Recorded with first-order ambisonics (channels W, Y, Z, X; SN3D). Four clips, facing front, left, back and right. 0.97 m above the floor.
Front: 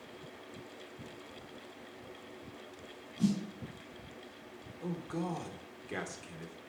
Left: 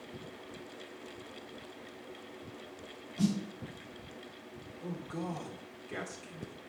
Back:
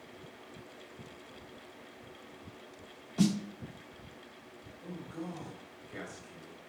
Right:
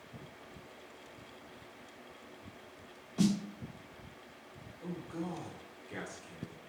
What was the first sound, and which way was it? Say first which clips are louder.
A snare drum: right 1 dB, back 3 dB; 155° right.